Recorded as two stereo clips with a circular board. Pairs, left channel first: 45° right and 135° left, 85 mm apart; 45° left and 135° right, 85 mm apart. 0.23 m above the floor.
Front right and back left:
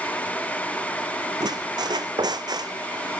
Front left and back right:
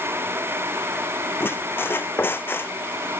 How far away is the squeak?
About 0.5 m.